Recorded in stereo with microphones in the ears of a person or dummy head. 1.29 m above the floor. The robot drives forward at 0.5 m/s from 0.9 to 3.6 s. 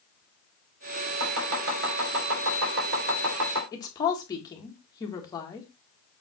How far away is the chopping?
About 4 m.